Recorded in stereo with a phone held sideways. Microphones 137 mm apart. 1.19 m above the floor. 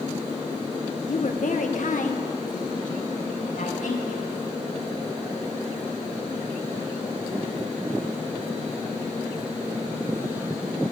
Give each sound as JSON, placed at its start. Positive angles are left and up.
{"t": 1.1, "sound": "a woman speaking", "side_deg": 60, "distance_m": 0.9}